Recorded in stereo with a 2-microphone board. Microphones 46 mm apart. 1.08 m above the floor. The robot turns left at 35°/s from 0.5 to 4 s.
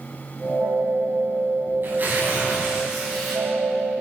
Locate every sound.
1.8 s tearing paper: 130° right, 8.5 m; by 3.4 s 175° left, 8.5 m